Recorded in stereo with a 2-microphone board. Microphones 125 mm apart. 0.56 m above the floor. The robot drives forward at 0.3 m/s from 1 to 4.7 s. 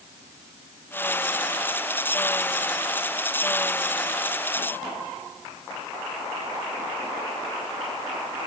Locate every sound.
Only background noise.